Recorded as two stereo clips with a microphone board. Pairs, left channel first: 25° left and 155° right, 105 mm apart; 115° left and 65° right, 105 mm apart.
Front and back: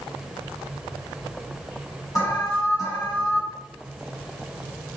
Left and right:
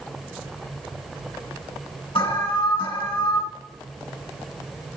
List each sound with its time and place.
2.1 s an alarm: 80° left, 4 m